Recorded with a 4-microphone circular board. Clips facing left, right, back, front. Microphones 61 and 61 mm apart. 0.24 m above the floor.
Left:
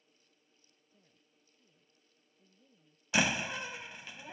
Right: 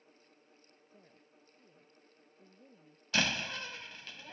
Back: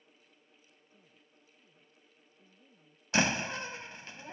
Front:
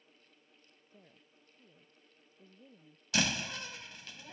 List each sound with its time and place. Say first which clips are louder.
0.9 s a woman speaking: right 9 dB, front 6 dB; 40° right
3.1 s a door slam: left 2 dB, back 4 dB; 155° left